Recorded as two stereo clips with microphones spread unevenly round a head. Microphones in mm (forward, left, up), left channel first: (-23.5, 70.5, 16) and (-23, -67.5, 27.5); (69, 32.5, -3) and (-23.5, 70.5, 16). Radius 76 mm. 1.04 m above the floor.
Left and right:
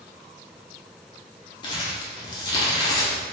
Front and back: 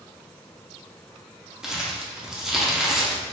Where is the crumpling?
105° left, 0.6 m.